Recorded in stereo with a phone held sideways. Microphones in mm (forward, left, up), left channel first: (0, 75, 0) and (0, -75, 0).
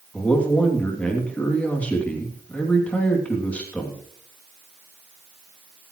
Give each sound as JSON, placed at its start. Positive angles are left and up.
{"t": 0.1, "sound": "a man speaking", "side_deg": 10, "distance_m": 2.5}